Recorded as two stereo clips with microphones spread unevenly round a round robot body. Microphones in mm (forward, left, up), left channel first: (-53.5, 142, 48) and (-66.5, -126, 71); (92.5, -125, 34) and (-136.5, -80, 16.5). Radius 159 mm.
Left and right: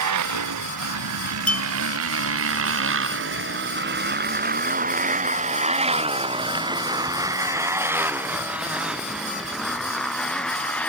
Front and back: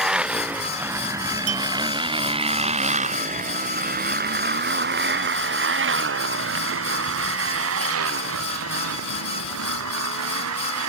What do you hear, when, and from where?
0.0 s a motorcycle: 105° right; by 10.9 s 170° left
1.5 s a clink: 175° left